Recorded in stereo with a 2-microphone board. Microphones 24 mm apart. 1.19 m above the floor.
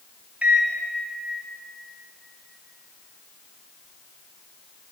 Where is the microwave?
70° right (ahead or behind), 0.6 m.